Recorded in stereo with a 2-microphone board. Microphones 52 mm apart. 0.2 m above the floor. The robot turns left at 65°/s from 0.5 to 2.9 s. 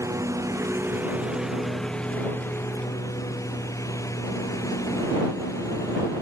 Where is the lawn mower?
75° right (ahead or behind); by 6.2 s 75° left (ahead or behind).